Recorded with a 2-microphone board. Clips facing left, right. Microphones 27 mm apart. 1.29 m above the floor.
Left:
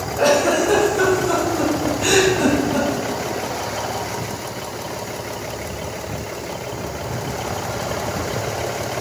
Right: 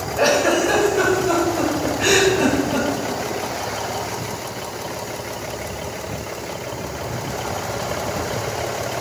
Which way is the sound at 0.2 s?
45° right (ahead or behind).